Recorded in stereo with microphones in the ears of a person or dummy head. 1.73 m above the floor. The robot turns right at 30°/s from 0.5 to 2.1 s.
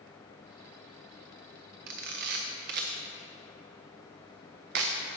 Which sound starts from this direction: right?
A camera shutter, at 1.9 s.